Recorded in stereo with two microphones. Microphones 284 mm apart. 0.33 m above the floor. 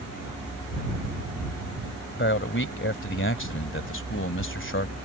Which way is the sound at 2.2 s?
40° left (ahead or behind).